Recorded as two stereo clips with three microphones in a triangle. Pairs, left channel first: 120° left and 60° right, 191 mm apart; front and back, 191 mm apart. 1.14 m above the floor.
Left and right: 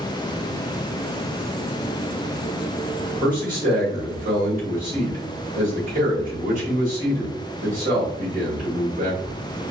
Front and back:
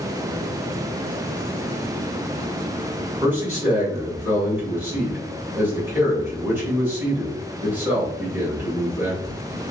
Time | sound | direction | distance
3.2 | a man speaking | 100° right | 1.6 m